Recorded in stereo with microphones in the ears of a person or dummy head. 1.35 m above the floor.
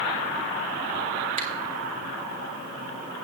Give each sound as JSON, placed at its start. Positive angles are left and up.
{"t": 1.4, "sound": "a camera shutter", "side_deg": -35, "distance_m": 1.4}